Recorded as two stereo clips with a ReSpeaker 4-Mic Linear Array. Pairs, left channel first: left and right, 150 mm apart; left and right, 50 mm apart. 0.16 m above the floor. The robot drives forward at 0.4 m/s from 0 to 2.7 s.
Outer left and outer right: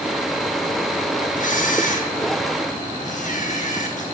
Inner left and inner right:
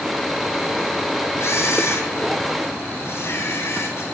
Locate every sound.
1.4 s a camera shutter: 60° left (ahead or behind), 1.3 m; by 4.0 s 55° left (ahead or behind), 1.3 m